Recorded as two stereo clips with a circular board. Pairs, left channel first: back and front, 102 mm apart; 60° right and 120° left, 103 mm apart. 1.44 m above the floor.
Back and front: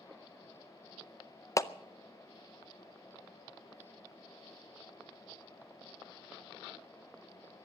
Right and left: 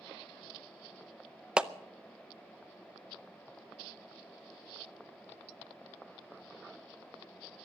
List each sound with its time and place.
1.6 s a clap: 165° right, 0.6 m